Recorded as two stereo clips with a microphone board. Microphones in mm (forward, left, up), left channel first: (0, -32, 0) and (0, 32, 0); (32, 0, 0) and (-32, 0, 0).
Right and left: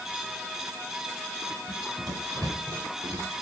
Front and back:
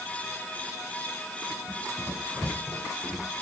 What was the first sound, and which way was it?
Running footsteps, 70° left.